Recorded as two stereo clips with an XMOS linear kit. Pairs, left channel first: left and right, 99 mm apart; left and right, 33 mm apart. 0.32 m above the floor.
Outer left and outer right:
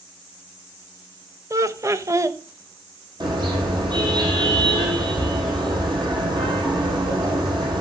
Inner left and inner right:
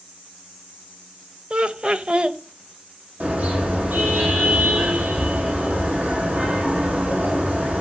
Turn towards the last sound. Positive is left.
turn(degrees=-50)  # may be behind; listen again after turning